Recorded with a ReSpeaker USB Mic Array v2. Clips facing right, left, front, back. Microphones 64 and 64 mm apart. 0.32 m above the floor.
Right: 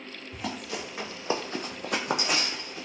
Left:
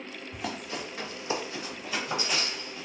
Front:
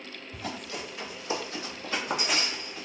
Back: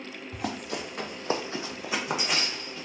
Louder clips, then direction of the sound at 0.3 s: Right 1 dB, back 4 dB; 175° left.